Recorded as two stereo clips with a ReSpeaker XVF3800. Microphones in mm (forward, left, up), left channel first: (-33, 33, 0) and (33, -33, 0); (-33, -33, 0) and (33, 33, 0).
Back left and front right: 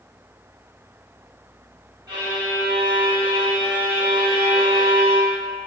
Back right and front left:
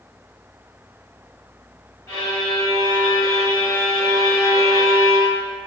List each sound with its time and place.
2.1 s a violin: 80° right, 1.3 m